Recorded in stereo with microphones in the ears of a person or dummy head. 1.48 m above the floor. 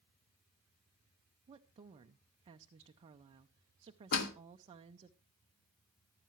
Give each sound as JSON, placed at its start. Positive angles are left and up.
{"t": 1.5, "sound": "a woman speaking", "side_deg": -25, "distance_m": 0.5}
{"t": 4.1, "sound": "a door slam", "side_deg": 60, "distance_m": 1.4}